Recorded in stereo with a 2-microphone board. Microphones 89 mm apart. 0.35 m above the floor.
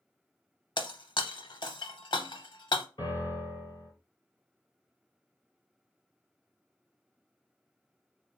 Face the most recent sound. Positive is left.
turn(degrees=55)  # may be behind; listen again after turning